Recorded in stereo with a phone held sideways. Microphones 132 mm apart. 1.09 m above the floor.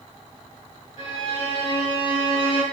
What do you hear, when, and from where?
1.0 s a violin: 30° right (ahead or behind), 8.5 m